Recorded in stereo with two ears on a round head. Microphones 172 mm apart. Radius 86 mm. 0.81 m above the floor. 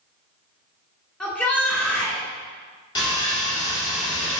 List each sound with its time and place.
1.2 s a shout: 5° left (ahead or behind), 2.5 m
3.0 s sawing: 20° left (ahead or behind), 2.0 m